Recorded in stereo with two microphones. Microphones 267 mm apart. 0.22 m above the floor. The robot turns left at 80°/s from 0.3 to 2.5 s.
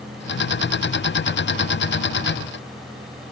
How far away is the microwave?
No microwave in this recording.